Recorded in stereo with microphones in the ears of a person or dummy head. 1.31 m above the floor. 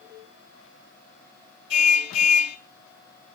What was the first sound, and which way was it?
A car horn, 70° left (ahead or behind).